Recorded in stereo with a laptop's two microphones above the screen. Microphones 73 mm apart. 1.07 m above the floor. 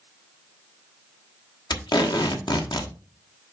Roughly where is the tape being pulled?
Left.